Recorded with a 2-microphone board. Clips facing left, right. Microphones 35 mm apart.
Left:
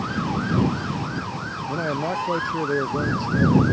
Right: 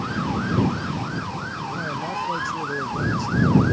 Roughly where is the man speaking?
Left.